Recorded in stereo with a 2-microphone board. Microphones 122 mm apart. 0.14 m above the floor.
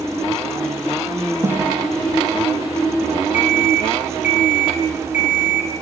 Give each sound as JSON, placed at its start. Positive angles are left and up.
{"t": 1.4, "sound": "a snare drum", "side_deg": -20, "distance_m": 3.5}
{"t": 3.3, "sound": "an alarm clock", "side_deg": 80, "distance_m": 5.5}